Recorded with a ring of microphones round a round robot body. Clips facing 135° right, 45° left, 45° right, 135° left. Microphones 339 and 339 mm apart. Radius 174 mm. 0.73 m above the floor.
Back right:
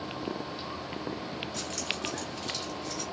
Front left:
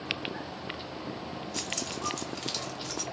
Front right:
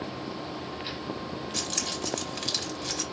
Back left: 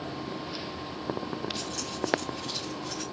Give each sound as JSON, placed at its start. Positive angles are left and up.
{"t": 1.5, "sound": "keys jangling", "azimuth_deg": -20, "distance_m": 1.5}